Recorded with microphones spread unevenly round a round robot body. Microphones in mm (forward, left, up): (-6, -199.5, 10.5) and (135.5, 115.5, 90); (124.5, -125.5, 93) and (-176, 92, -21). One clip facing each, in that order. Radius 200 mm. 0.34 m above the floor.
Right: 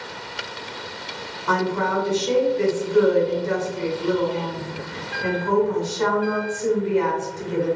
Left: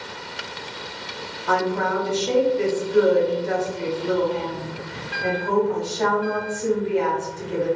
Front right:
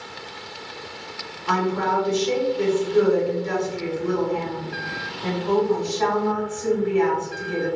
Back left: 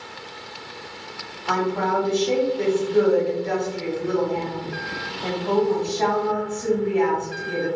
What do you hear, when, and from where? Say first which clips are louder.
1.5 s a woman speaking: even, even; 120° right, 1.4 m